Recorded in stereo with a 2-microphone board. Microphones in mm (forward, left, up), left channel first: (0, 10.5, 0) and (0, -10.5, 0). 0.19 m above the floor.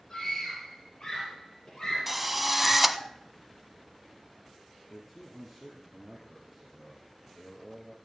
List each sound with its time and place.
0.1 s a scream: 35° left (ahead or behind), 4.5 m
2.1 s a drill: 5° right (ahead or behind), 0.8 m
4.9 s a man speaking: 10° left (ahead or behind), 3 m